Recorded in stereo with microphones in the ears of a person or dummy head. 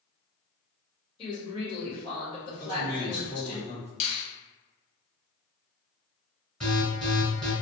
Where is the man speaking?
50° left (ahead or behind), 1.4 m.